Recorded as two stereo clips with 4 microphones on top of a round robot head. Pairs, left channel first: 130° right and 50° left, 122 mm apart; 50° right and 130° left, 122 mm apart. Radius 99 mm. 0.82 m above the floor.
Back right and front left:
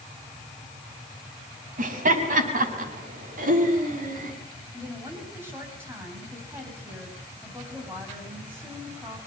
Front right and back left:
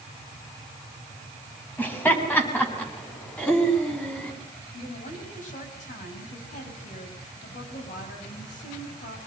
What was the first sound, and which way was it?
Laughter, 25° left.